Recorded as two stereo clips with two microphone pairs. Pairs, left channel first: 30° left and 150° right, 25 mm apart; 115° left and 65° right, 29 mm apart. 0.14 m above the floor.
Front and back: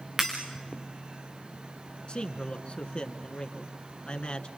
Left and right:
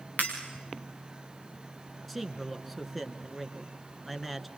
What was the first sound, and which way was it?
Breaking glass, 135° left.